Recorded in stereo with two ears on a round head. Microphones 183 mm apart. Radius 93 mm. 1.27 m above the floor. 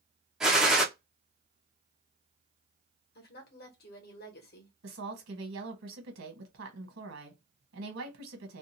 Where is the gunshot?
Centre (ahead or behind), 0.6 m.